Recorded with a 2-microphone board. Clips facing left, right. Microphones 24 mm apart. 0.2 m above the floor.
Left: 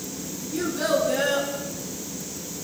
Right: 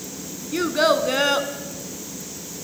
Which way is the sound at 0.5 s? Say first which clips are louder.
Right 5 dB; 50° right (ahead or behind).